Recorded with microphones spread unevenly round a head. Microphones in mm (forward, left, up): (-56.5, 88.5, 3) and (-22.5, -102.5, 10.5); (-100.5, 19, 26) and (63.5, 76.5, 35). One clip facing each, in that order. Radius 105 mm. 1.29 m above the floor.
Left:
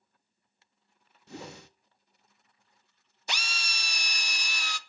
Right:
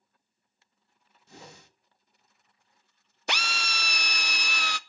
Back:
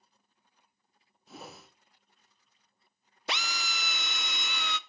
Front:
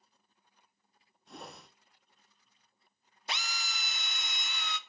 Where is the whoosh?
110° left, 0.9 m.